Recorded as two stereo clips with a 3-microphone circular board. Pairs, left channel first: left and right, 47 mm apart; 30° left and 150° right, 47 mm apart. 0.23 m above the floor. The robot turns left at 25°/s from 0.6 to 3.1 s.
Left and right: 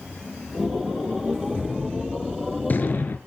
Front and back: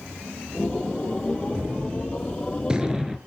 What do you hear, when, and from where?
1.5 s a gunshot: 170° left, 3 m; by 3.2 s 130° left, 3 m